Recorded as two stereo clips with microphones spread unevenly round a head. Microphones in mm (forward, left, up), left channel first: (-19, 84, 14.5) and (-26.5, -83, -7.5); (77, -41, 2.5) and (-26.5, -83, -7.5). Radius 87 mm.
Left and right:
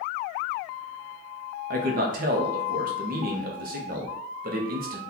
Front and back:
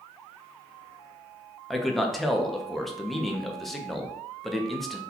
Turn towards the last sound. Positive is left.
turn(degrees=-70)